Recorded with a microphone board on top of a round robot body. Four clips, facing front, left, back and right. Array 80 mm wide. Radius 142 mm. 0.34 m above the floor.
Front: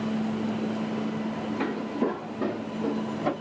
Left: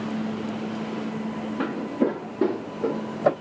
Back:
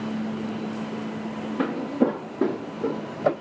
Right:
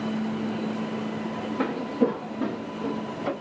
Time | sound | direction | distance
1.6 | footsteps | straight behind | 1.3 m